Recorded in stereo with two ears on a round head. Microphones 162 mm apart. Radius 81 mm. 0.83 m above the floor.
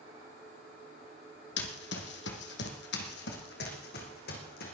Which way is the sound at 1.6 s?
65° left (ahead or behind).